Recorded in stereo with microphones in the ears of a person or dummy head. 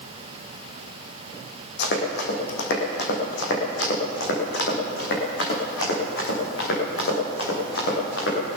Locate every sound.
1.8 s running footsteps: 70° left (ahead or behind), 3.5 m; by 8.6 s 80° left, 7 m